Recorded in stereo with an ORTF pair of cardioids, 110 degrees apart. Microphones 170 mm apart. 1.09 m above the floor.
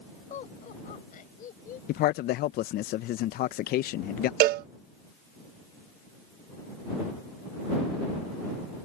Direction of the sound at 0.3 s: 50° left.